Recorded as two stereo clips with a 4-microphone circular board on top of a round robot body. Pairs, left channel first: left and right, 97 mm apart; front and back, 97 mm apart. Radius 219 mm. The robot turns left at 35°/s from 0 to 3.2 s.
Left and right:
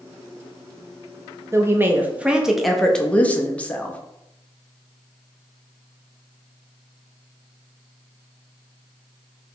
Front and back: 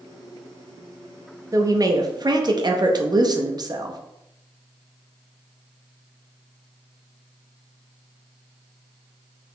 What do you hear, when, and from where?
1.5 s a woman speaking: 140° right, 0.7 m; by 4.0 s 160° left, 0.7 m